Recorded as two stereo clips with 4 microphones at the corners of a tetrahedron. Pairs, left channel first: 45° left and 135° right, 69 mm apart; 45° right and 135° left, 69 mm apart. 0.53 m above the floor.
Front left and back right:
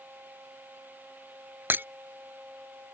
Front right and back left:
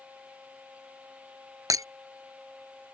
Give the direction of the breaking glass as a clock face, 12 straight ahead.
6 o'clock.